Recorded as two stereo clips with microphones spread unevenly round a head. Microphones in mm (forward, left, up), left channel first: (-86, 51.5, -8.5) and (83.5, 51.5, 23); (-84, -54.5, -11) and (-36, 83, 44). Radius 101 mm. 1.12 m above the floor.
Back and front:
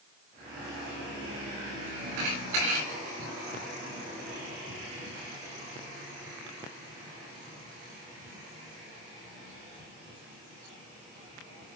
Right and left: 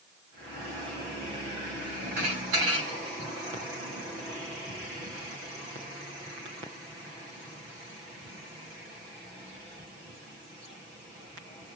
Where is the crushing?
No crushing in this recording.